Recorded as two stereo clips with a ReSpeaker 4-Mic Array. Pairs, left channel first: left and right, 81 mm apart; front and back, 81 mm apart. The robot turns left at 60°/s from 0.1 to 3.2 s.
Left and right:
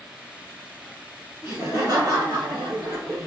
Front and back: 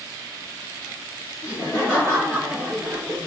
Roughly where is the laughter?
Ahead right.